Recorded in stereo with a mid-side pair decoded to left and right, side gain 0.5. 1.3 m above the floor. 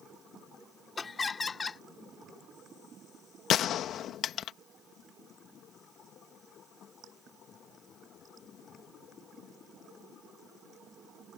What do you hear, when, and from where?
1.0 s laughter: 30° left
3.5 s a gunshot: 60° left